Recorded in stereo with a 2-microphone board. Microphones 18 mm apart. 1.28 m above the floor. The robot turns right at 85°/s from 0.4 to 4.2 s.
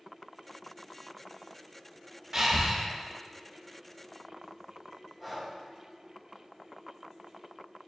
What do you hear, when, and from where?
2.3 s breathing: 35° right, 0.6 m; by 2.8 s 5° left, 0.6 m
5.2 s breathing: 20° right (ahead or behind), 0.8 m